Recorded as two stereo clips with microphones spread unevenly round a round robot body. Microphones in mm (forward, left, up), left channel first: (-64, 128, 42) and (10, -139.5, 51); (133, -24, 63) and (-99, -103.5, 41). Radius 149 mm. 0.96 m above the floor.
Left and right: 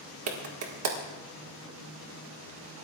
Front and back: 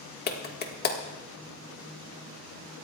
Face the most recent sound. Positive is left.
turn(degrees=-35)